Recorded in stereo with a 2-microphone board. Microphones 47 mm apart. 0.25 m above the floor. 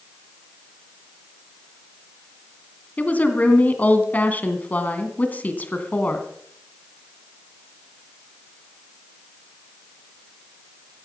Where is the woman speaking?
35° left (ahead or behind), 2.5 m.